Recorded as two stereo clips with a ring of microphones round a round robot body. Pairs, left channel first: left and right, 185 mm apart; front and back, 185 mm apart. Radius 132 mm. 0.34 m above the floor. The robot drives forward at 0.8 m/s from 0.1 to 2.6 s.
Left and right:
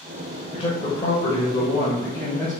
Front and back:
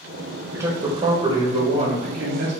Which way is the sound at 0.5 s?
115° left.